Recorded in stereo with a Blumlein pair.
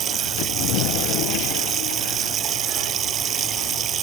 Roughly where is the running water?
Ahead right.